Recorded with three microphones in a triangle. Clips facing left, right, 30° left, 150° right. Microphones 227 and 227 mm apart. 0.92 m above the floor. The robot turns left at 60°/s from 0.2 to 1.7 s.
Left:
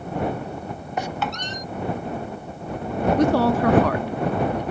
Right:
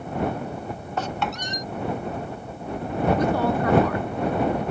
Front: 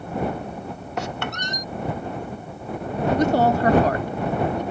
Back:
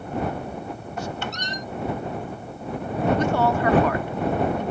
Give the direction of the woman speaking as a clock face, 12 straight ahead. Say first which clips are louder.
Left 4 dB, front 3 dB; 9 o'clock.